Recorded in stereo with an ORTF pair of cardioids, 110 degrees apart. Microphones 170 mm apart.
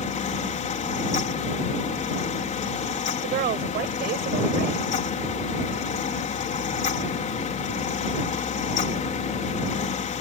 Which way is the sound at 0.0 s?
45° left.